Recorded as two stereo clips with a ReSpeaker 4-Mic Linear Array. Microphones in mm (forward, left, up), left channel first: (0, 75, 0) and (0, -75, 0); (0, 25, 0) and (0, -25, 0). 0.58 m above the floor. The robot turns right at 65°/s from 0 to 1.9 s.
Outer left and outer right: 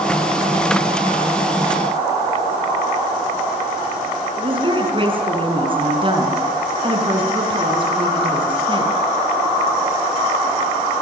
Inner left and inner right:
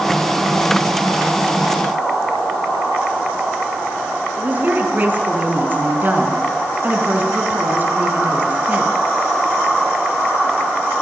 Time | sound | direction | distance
4.4 | a woman speaking | 35° right (ahead or behind) | 5.5 m